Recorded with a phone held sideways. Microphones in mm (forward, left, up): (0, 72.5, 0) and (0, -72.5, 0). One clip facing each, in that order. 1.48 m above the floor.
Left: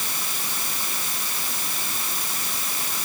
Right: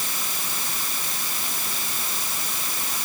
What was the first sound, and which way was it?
Only background noise.